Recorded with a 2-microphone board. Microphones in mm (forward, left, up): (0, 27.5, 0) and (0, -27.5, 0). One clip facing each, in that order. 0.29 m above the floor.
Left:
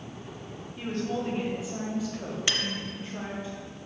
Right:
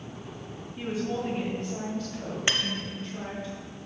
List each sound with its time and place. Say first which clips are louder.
0.8 s a woman speaking: right 1 dB; 5° right (ahead or behind), 1.9 m; by 3.5 s 20° left (ahead or behind), 2 m
2.5 s cutlery clinking: right 3 dB; 25° right (ahead or behind), 0.5 m